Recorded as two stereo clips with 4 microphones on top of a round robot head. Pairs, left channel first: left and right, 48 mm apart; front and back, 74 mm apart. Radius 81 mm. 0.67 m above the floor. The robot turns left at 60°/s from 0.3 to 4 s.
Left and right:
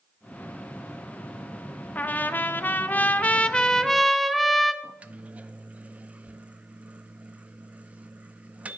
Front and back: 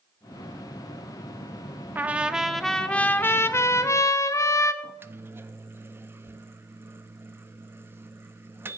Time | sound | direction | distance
1.9 | a trumpet | 125° left | 0.9 m
4.8 | a microwave | 135° right | 0.7 m